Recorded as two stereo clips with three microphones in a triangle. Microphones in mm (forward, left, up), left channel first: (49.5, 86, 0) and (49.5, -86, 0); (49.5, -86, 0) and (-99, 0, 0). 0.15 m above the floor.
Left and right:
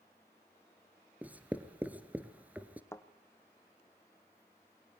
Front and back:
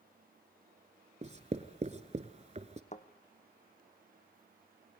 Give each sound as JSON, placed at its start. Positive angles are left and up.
{"t": 1.2, "sound": "writing", "azimuth_deg": -170, "distance_m": 1.4}
{"t": 2.9, "sound": "a thud", "azimuth_deg": 15, "distance_m": 1.7}